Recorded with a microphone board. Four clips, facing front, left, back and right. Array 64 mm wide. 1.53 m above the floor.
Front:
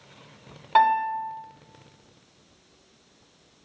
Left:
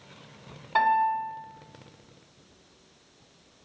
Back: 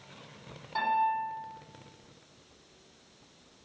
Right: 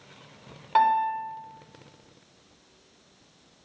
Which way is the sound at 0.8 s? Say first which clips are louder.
Right 1 dB, front 8 dB; 25° right.